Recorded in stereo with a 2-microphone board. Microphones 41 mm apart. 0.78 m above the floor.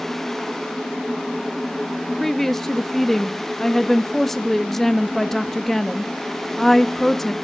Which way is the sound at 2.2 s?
10° left (ahead or behind).